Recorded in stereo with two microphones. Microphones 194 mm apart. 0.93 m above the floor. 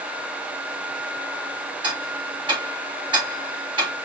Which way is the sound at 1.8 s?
25° right (ahead or behind).